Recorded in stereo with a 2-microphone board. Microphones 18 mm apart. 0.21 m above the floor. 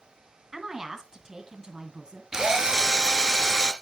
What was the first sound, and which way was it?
A woman speaking, 25° right (ahead or behind).